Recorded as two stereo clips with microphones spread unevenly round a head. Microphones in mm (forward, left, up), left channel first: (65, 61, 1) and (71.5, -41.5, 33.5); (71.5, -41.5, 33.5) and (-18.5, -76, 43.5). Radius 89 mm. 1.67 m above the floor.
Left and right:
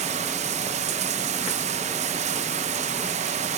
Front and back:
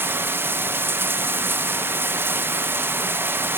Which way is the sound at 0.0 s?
90° right.